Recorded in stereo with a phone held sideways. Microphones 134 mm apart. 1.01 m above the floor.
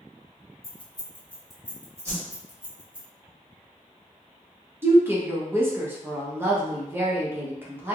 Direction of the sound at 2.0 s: 20° right (ahead or behind).